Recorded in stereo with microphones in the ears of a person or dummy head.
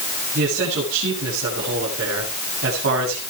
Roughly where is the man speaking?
Right.